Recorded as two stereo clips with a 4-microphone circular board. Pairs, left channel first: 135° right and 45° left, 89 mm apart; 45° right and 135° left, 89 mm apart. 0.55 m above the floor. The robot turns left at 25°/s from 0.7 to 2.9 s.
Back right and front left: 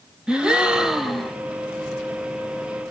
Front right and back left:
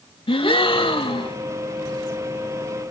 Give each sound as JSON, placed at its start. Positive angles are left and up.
{"t": 0.3, "sound": "a gasp", "azimuth_deg": -35, "distance_m": 0.7}